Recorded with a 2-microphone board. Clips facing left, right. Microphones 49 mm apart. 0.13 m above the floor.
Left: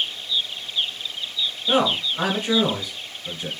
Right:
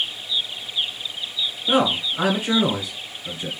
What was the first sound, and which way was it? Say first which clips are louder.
A man speaking: right 1 dB; 10° right (ahead or behind).